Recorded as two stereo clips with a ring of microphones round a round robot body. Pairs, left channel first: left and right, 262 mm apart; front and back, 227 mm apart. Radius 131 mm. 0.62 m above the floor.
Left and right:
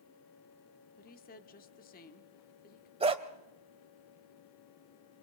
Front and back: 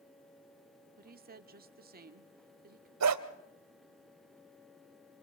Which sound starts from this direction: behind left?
A woman speaking, at 1.0 s.